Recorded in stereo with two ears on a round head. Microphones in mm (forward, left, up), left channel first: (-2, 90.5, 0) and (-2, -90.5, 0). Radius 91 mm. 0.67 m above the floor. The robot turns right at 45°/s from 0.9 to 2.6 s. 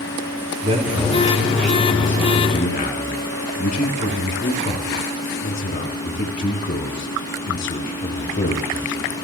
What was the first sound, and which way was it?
A man speaking, 30° right (ahead or behind).